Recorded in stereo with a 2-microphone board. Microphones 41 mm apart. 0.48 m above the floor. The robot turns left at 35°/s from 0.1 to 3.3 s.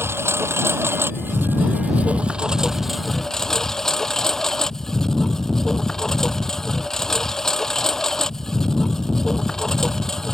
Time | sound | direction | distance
0.0 | a lawn mower | 80° right | ?